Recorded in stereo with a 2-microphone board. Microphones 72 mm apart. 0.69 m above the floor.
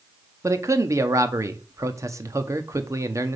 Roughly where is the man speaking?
Right.